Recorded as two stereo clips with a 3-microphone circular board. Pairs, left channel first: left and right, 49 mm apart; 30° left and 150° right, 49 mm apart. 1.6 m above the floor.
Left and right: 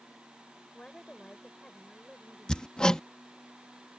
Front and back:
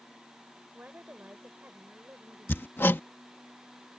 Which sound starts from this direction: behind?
A woman speaking, at 0.7 s.